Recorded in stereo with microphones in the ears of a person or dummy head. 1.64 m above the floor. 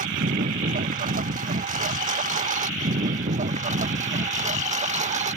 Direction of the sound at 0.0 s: 40° right (ahead or behind).